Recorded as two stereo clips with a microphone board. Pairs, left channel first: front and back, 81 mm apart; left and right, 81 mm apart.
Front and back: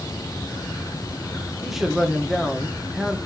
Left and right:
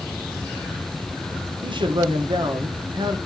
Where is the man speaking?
95° right, 1.4 m.